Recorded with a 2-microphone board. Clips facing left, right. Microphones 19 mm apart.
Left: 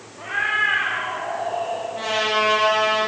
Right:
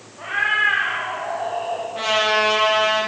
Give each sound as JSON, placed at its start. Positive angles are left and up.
{"t": 0.2, "sound": "a cat meowing", "side_deg": -10, "distance_m": 5.5}
{"t": 1.9, "sound": "a trumpet", "side_deg": -30, "distance_m": 7.5}